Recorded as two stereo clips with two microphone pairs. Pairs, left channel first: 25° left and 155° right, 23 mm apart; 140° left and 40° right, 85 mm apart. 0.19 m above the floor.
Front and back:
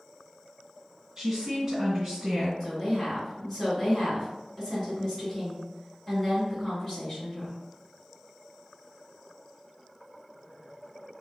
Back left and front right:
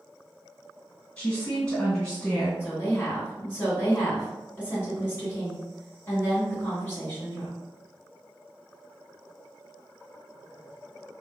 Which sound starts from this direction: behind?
A woman speaking, at 1.2 s.